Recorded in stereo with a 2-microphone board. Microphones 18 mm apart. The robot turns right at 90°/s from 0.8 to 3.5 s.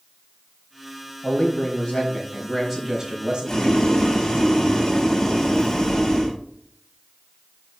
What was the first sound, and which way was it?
A man speaking, 45° left.